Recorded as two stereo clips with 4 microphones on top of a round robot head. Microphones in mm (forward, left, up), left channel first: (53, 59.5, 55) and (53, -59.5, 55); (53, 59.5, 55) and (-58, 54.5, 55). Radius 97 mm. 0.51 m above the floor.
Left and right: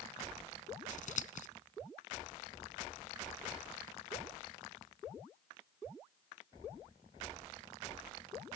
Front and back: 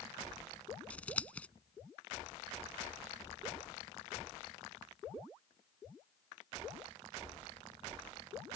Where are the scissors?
80° left.